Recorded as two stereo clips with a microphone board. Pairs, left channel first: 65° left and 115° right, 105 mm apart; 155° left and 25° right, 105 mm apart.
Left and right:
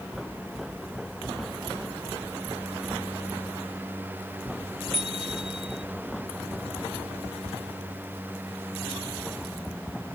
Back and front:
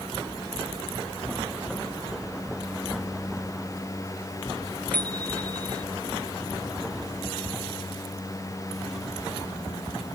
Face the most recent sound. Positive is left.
turn(degrees=-130)